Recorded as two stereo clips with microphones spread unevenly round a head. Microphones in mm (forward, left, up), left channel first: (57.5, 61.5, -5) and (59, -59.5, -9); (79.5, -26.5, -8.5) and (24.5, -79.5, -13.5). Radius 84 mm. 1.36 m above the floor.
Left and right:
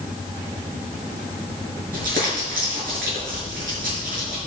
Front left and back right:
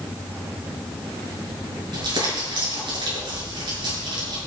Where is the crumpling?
115° right, 7 m.